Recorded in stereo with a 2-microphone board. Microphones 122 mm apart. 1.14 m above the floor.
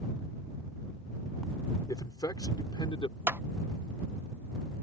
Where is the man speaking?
30° left (ahead or behind); by 3.2 s 40° left (ahead or behind).